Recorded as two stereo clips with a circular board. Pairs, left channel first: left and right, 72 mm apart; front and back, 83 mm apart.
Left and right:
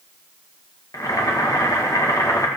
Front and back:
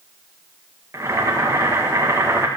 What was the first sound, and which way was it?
Boiling, 125° left.